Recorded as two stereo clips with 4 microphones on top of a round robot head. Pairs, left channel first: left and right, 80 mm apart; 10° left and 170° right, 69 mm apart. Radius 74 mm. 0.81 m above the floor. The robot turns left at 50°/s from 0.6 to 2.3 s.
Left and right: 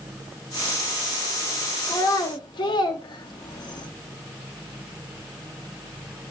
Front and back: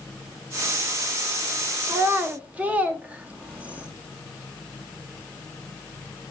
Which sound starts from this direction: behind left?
A child speaking, at 1.9 s.